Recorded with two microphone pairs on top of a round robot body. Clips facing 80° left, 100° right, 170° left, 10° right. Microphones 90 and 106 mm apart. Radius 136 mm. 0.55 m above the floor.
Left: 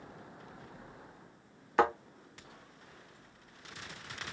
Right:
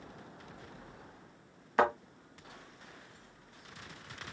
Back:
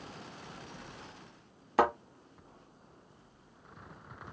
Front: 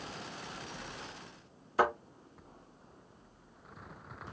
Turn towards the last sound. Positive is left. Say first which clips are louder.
# even, back 2 dB
turn(degrees=170)